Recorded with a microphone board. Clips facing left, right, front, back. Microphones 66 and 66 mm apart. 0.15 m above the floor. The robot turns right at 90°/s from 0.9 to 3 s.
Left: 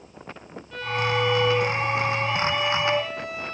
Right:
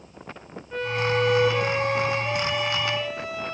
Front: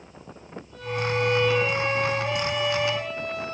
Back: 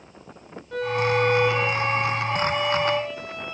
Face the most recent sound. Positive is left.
turn(degrees=30)